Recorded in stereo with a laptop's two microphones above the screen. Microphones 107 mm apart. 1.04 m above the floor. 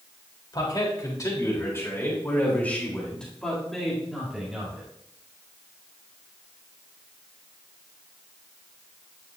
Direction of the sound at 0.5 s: 40° left (ahead or behind).